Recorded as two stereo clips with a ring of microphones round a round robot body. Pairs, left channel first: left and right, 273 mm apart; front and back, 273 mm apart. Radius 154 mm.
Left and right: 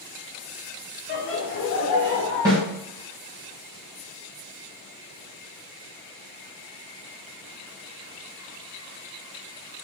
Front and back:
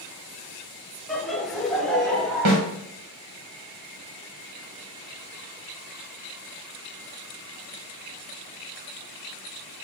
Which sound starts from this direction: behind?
A snare drum, at 2.5 s.